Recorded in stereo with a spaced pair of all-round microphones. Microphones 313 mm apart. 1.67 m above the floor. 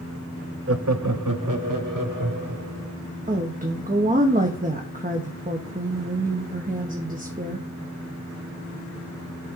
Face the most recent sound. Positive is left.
turn(degrees=-25)  # may be behind; listen again after turning